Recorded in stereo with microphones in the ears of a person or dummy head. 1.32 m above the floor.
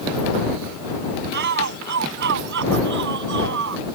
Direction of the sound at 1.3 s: 60° right (ahead or behind).